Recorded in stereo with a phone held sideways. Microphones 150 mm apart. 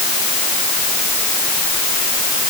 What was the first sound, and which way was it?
Only background noise.